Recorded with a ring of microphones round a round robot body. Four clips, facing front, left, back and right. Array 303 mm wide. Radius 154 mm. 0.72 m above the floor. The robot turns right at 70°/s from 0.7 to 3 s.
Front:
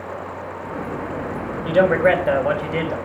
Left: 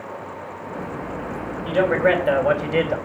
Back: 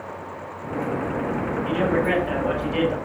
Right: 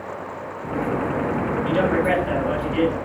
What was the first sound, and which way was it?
A man speaking, 5° right.